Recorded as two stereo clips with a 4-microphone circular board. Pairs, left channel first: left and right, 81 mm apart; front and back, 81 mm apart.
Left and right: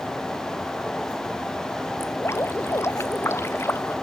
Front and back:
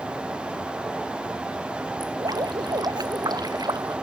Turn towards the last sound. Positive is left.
turn(degrees=145)